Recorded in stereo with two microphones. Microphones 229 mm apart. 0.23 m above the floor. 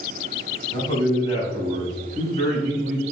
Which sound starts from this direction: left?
A man speaking, at 0.7 s.